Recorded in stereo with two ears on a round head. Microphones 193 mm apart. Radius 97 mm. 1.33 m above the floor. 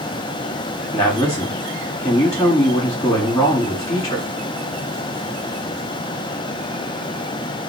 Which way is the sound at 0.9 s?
20° left (ahead or behind).